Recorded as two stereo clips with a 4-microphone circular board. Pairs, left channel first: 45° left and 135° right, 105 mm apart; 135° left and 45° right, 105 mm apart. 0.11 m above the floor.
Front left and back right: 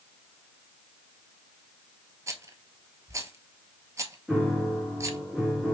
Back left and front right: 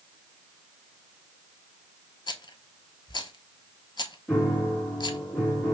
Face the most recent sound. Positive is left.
turn(degrees=130)